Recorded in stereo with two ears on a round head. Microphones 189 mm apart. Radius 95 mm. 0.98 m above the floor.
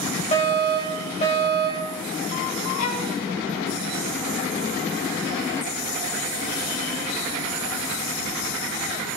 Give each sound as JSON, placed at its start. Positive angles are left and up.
{"t": 0.3, "sound": "a fire alarm", "side_deg": 30, "distance_m": 3.5}
{"t": 2.8, "sound": "a violin", "side_deg": 70, "distance_m": 1.7}